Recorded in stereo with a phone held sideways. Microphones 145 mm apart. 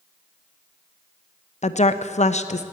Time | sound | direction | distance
1.6 | a woman speaking | 50° left (ahead or behind) | 0.6 m